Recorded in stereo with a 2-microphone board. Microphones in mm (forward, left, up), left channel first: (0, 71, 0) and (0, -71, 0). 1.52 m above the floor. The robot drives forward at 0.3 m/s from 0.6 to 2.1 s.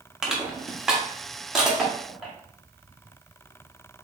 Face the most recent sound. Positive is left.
turn(degrees=-5)  # may be behind; listen again after turning